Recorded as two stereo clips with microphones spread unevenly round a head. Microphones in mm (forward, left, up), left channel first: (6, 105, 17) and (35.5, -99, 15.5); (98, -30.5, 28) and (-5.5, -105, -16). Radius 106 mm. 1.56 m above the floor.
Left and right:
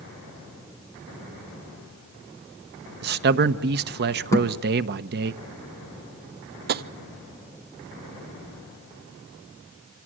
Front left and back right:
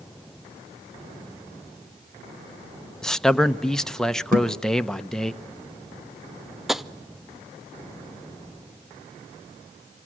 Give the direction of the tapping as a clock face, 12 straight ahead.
2 o'clock.